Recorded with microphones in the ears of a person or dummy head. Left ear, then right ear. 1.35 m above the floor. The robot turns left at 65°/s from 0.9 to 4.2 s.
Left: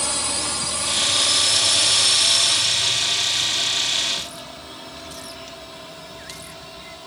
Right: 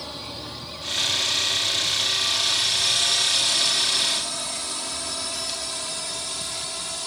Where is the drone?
55° left (ahead or behind); by 7.1 s 65° right (ahead or behind).